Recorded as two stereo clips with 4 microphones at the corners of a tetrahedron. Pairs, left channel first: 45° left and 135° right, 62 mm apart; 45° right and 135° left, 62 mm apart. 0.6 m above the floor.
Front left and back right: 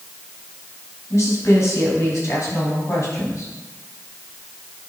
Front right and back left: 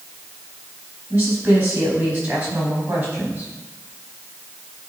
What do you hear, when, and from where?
1.1 s a woman speaking: 85° left, 4 m